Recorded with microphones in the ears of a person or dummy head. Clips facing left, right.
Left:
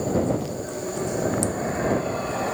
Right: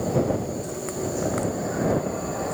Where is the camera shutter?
No camera shutter in this recording.